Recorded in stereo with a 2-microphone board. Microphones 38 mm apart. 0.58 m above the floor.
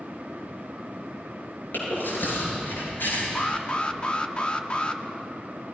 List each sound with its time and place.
1.7 s chewing: 60° left (ahead or behind), 10 m
3.4 s an alarm: 30° left (ahead or behind), 1.2 m